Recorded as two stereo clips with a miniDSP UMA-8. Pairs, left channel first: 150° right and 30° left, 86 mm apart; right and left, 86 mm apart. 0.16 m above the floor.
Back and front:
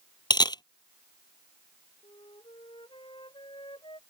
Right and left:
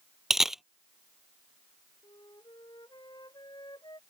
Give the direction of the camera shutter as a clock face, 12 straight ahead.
6 o'clock.